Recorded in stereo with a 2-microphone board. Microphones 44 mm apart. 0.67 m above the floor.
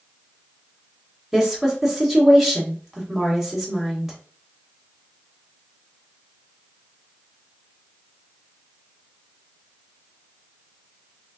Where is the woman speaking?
5° right (ahead or behind), 1.4 m.